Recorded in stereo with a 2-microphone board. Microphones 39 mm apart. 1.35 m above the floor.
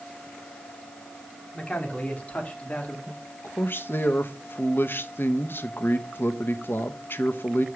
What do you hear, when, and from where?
1.5 s a man speaking: 35° left (ahead or behind), 3 m
3.1 s a man speaking: 65° left (ahead or behind), 1.0 m